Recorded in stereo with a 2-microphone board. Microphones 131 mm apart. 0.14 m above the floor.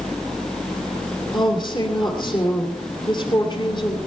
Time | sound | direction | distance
1.3 | a woman speaking | 35° left (ahead or behind) | 2.5 m